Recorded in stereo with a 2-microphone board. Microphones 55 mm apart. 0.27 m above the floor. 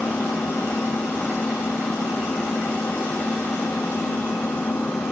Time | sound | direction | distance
0.0 | an engine running | 50° left (ahead or behind) | ?